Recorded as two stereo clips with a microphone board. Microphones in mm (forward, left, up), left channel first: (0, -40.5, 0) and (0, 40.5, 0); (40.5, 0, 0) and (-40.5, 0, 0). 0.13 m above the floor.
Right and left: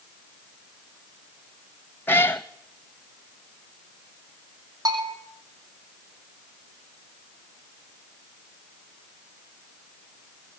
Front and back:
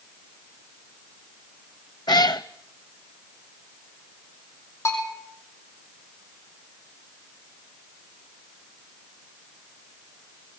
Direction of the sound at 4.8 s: 50° left.